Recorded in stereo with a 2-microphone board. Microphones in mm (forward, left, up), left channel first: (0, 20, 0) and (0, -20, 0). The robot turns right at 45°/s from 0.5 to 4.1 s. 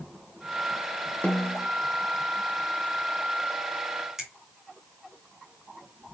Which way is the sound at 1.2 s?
30° left (ahead or behind).